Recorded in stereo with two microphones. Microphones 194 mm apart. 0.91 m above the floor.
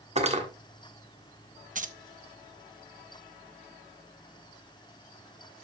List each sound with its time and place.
0.2 s cutlery clinking: 35° right (ahead or behind), 1.4 m
1.8 s keys jangling: 40° right (ahead or behind), 0.6 m